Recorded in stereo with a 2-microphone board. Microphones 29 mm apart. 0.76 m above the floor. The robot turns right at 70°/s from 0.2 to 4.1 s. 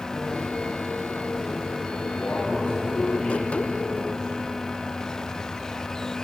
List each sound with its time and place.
2.0 s a man speaking: 80° left, 4.5 m; by 4.3 s 135° right, 4.5 m